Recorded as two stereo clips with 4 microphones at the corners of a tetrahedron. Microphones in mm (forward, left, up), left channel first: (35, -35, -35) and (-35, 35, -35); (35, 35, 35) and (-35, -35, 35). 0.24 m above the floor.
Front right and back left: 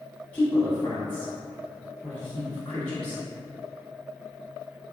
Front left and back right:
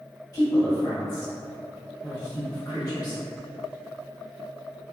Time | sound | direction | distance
0.3 | a woman speaking | 20° left | 1.4 m